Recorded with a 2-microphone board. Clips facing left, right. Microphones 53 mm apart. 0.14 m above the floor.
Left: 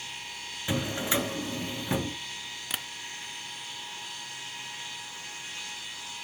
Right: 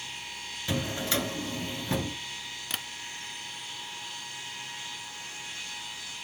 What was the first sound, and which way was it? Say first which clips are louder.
A drawer: left 1 dB; 20° left (ahead or behind).